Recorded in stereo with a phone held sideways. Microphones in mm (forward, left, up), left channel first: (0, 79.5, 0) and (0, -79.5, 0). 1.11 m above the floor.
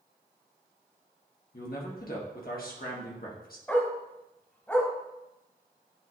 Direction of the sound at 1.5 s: 70° left (ahead or behind).